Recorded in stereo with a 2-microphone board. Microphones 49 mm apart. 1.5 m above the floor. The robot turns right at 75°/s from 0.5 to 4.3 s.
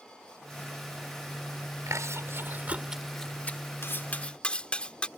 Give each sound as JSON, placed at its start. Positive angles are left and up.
{"t": 1.9, "sound": "chewing", "side_deg": -85}
{"t": 3.8, "sound": "cutlery clinking", "side_deg": 55}